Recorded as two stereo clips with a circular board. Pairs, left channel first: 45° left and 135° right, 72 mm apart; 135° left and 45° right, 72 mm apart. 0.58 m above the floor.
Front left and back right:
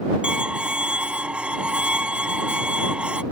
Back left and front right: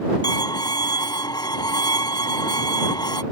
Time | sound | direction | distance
0.2 | a violin | 150° left | ?